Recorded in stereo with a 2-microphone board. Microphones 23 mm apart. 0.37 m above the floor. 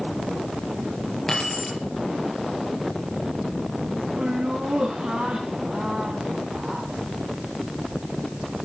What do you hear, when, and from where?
1.3 s keys jangling: 15° left (ahead or behind), 4.5 m
4.2 s laughter: 65° right (ahead or behind), 3 m